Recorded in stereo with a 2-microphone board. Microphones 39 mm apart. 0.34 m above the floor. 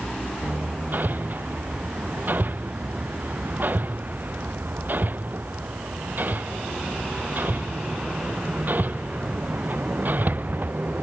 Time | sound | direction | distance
0.4 | hammering | 50° right (ahead or behind) | ?